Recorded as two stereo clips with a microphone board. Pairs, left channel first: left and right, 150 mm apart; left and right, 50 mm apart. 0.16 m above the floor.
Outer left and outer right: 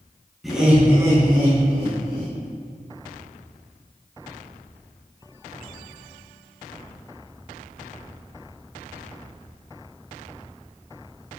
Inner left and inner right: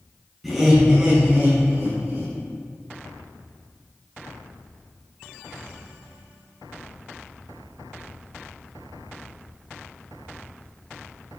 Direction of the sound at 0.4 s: Centre (ahead or behind).